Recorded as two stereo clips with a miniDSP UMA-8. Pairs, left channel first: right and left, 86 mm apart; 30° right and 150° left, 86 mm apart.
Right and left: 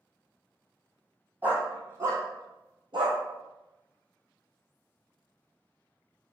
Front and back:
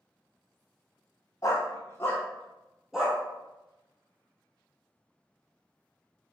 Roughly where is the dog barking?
Ahead.